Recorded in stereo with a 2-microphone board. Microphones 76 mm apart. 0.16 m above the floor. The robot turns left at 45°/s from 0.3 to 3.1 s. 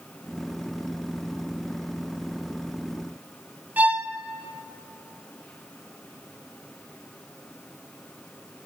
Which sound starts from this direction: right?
A violin, at 3.8 s.